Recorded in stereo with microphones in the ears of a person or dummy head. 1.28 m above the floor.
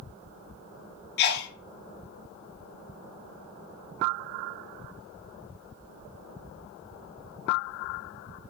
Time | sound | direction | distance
1.2 | a sneeze | 50° left (ahead or behind) | 0.6 m